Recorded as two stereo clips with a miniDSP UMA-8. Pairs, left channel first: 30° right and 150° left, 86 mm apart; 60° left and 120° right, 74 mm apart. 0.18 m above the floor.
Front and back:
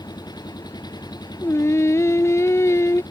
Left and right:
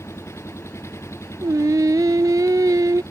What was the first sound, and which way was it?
An engine running, 10° left.